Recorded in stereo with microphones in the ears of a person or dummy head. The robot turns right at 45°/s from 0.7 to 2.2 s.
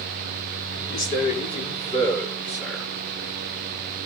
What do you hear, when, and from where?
0.9 s a man speaking: 115° left, 5.5 m; by 2.9 s 170° left, 5.5 m